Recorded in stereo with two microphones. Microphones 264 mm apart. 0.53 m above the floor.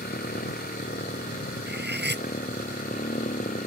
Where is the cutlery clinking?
40° right (ahead or behind).